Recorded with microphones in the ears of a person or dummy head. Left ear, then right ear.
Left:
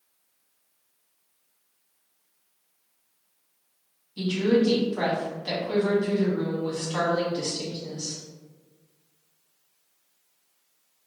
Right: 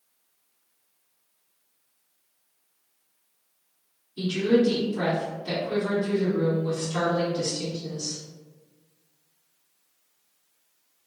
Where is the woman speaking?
35° left (ahead or behind), 1.1 m.